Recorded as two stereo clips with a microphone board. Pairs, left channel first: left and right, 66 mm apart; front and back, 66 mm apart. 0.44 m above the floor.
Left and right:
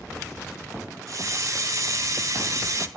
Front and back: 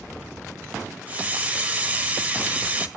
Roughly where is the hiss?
Behind right.